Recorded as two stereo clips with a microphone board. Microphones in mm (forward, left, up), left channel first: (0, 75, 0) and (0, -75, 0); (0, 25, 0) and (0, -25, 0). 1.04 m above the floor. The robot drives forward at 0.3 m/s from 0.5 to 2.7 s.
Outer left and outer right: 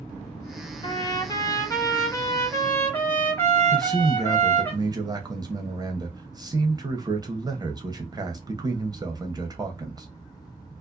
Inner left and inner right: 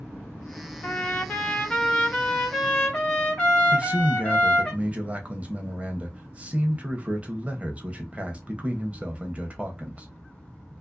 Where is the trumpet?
35° left (ahead or behind), 0.6 m; by 4.7 s 15° left (ahead or behind), 1.0 m.